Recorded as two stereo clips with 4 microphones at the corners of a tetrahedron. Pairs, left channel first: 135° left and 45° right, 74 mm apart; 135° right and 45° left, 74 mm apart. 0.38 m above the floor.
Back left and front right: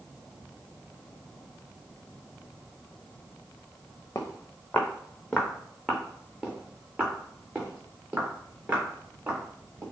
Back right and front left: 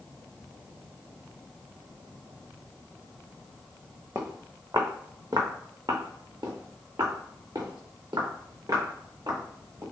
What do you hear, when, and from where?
4.2 s footsteps: 85° left, 1.0 m; by 9.8 s 15° left, 3.5 m